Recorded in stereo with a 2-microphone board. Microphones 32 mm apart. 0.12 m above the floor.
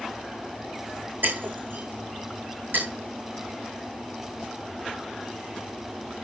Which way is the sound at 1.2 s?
80° right.